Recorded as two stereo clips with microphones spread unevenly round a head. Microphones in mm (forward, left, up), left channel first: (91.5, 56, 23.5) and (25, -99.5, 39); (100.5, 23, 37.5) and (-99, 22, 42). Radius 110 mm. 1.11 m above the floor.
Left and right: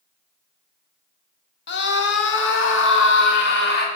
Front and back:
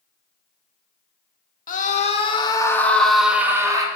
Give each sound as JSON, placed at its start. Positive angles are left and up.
{"t": 1.7, "sound": "a scream", "azimuth_deg": 50, "distance_m": 1.4}